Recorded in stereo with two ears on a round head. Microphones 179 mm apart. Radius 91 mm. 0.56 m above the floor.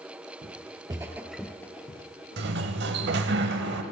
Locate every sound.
0.4 s footsteps: 30° right (ahead or behind), 0.7 m; by 3.4 s 35° left (ahead or behind), 1.3 m
2.4 s a sliding door: 55° right (ahead or behind), 0.7 m